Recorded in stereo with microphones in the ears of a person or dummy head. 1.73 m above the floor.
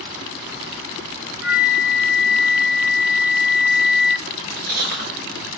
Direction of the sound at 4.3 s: 50° right (ahead or behind).